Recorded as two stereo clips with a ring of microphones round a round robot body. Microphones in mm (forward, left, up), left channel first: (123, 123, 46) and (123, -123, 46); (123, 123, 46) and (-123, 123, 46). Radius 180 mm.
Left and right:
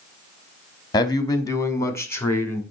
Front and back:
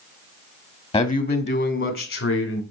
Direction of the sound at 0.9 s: 35° left.